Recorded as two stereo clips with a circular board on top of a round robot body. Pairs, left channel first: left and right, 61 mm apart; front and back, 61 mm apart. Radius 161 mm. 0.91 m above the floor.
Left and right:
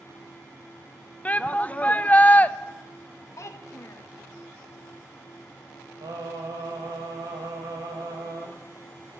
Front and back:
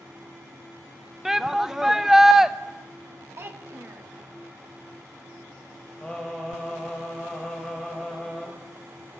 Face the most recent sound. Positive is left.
turn(degrees=-80)